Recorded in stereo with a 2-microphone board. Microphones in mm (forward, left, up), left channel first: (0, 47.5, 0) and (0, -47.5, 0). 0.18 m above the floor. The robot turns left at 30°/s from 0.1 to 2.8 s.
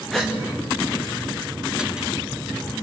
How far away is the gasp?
About 3 m.